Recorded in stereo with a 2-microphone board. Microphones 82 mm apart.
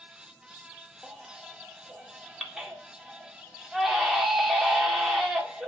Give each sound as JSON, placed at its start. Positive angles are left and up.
{"t": 1.0, "sound": "a baby crying", "side_deg": -5, "distance_m": 2.0}